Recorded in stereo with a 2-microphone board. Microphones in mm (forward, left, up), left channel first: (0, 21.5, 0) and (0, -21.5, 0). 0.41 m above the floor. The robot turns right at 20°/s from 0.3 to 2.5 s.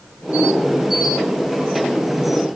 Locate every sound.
Only background noise.